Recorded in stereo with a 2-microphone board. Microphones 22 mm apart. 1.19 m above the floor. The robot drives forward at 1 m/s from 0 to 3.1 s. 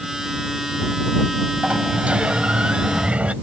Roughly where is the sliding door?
Right.